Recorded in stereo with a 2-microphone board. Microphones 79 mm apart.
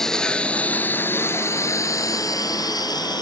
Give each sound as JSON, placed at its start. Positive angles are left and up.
{"t": 0.0, "sound": "a lawn mower", "side_deg": 5}